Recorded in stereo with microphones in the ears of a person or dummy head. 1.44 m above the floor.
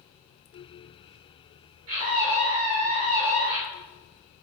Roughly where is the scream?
Right.